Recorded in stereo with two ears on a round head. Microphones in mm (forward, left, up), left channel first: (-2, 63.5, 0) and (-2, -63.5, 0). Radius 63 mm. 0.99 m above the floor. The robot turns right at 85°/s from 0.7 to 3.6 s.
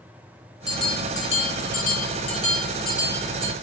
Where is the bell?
5° right, 1.1 m; by 3.5 s 125° right, 1.1 m.